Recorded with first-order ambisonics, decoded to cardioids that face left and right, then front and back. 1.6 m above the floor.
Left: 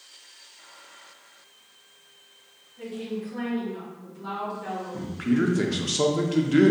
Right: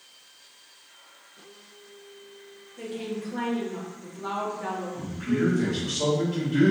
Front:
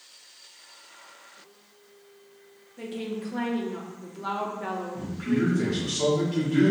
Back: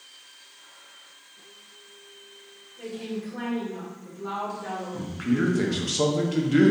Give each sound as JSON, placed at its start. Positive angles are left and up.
{"t": 2.8, "sound": "a woman speaking", "azimuth_deg": -30, "distance_m": 0.7}
{"t": 4.9, "sound": "a man speaking", "azimuth_deg": 120, "distance_m": 0.5}